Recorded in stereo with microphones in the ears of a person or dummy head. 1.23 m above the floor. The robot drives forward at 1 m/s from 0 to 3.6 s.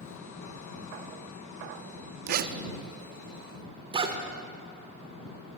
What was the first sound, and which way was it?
A zipper, 55° right (ahead or behind).